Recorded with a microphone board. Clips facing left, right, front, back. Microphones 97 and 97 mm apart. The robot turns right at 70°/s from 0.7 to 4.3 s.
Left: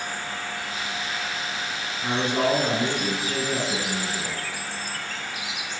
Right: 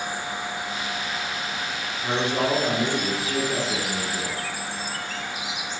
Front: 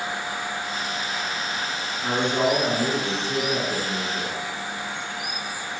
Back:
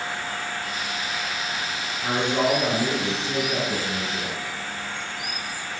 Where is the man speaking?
95° left, 1.9 m; by 4.3 s 110° right, 1.9 m.